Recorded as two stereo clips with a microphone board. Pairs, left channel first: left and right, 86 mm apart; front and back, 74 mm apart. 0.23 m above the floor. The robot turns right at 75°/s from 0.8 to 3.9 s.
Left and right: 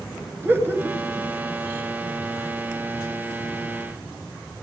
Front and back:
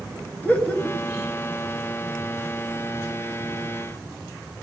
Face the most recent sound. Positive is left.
turn(degrees=-175)